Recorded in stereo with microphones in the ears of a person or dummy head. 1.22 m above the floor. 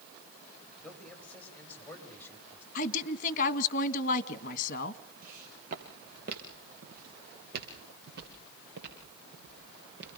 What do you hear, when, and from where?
0.8 s a man speaking: 10° left (ahead or behind), 6 m; by 2.6 s 15° left (ahead or behind), 6.5 m
2.8 s a woman speaking: 50° left (ahead or behind), 1.7 m
5.2 s footsteps: 45° right (ahead or behind), 6 m; by 10.2 s 60° right (ahead or behind), 10 m